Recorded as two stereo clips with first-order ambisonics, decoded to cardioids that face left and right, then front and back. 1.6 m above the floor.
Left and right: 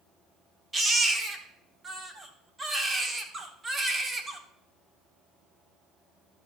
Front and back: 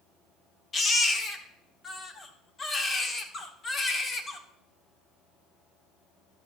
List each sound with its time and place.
0.7 s a baby crying: 45° right, 1.2 m